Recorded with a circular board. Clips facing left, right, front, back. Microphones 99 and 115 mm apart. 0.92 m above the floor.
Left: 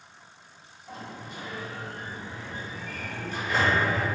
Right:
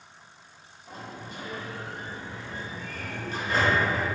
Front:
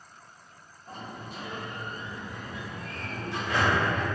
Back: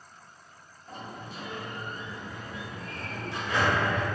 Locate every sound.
0.9 s a sliding door: 35° right, 0.9 m